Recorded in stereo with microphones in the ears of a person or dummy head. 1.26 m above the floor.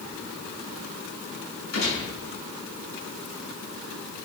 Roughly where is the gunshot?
Left.